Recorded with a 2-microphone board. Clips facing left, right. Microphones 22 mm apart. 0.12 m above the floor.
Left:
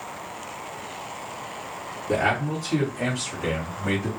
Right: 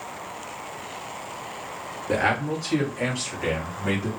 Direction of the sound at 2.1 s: 30° right (ahead or behind).